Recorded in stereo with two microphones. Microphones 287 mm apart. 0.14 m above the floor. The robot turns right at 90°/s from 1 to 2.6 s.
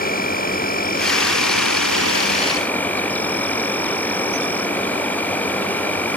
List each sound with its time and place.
0.0 s an insect: 30° left; by 6.2 s 175° left